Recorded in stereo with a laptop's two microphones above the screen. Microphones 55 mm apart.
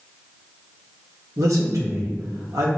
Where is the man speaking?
75° right (ahead or behind), 1.1 m.